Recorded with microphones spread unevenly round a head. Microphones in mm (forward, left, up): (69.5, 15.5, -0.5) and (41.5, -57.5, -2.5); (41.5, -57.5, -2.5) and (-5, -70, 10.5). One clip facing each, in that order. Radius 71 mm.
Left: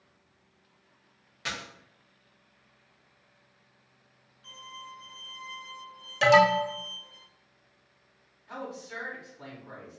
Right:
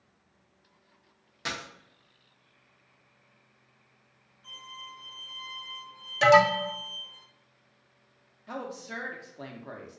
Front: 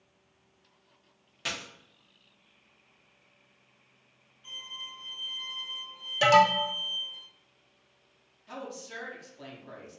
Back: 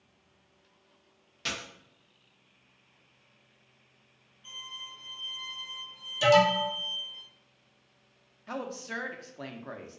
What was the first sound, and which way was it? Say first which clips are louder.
A dropped coin: right 1 dB, even; 95° right.